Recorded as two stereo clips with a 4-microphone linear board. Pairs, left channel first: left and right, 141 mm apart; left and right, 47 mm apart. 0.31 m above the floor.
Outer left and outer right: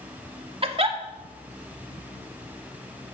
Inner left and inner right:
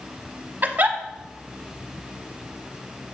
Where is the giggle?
40° right (ahead or behind), 0.7 m.